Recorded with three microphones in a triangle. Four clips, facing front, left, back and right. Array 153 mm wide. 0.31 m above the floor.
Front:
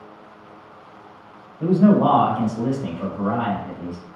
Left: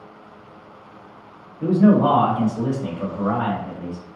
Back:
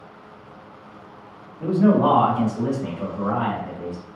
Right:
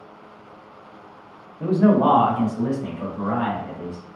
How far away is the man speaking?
About 1.1 m.